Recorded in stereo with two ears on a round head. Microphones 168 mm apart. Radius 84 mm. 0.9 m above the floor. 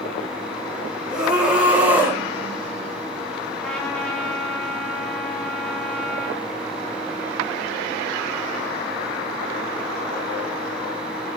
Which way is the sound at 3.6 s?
5° left (ahead or behind).